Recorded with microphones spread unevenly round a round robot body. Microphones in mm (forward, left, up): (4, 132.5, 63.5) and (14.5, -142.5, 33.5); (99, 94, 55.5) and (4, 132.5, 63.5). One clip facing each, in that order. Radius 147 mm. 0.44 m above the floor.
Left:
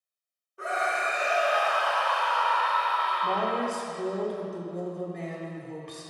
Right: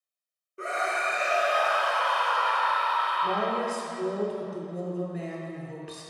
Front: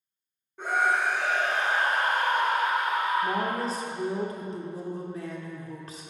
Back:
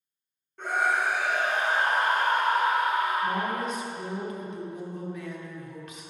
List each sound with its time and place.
0.6 s a scream: 90° right, 1.4 m; by 3.5 s 165° right, 2.5 m
3.2 s a woman speaking: 15° right, 1.3 m